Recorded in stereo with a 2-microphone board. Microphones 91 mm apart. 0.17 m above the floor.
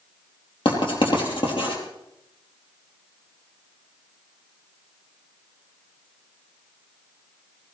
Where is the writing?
65° left (ahead or behind), 4.5 m.